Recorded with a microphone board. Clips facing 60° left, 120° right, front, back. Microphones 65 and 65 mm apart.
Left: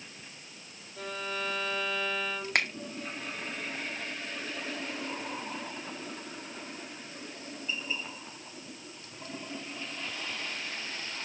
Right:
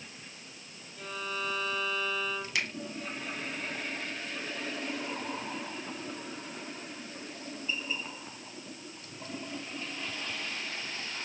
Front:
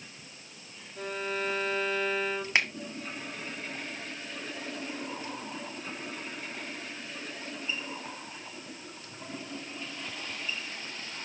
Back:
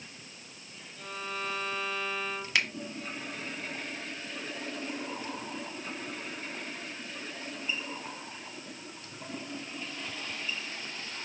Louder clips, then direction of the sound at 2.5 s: Left 6 dB, front 2 dB; 50° left.